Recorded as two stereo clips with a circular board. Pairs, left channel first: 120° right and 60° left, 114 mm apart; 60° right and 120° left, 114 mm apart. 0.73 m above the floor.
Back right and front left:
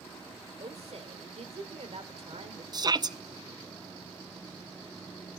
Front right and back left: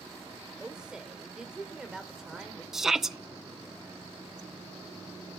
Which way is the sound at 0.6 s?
35° left.